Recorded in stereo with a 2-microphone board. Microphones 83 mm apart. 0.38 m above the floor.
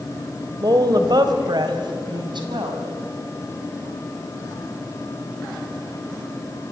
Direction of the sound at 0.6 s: 50° right (ahead or behind).